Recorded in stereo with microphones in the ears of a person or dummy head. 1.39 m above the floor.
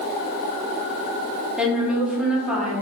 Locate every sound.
1.6 s a woman speaking: 5° right (ahead or behind), 1.0 m